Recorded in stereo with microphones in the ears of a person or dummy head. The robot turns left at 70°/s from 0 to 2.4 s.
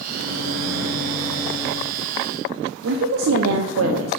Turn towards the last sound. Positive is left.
turn(degrees=-80)